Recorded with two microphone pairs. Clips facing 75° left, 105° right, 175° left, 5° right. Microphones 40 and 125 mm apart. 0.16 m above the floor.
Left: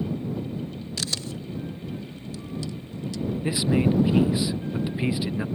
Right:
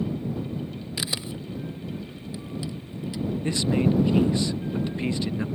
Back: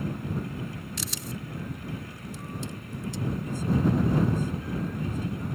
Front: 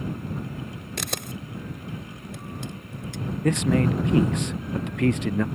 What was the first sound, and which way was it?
A camera shutter, 30° right.